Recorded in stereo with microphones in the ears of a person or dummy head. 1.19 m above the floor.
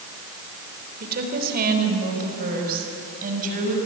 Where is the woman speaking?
50° right (ahead or behind), 3.5 m; by 3.8 s 45° right (ahead or behind), 6.5 m.